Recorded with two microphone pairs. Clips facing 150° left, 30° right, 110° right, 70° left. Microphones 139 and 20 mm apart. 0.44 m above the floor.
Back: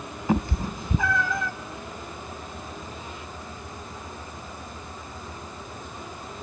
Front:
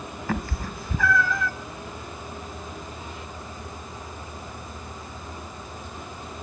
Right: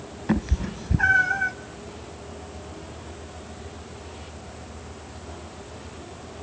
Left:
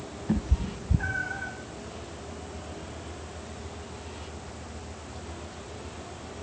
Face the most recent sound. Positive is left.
turn(degrees=-145)